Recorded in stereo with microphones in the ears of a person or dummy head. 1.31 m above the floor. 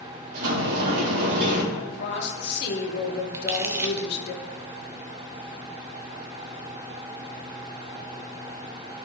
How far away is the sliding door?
About 2.5 m.